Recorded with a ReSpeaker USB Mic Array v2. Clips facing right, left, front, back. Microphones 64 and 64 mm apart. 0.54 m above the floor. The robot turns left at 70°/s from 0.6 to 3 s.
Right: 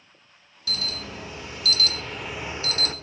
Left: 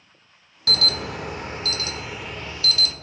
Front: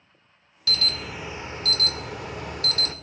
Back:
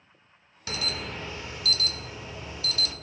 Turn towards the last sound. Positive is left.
turn(degrees=-50)